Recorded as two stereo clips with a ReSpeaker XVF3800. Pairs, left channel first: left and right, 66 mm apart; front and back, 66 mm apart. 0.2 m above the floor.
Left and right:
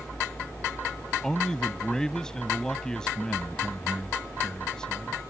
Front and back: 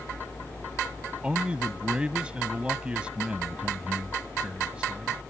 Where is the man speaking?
145° left.